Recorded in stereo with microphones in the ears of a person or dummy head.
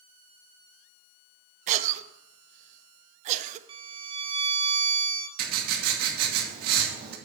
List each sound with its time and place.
1.7 s a cough: 40° right (ahead or behind), 0.9 m
3.7 s a violin: 25° right (ahead or behind), 0.8 m
5.4 s writing: 55° right (ahead or behind), 2.5 m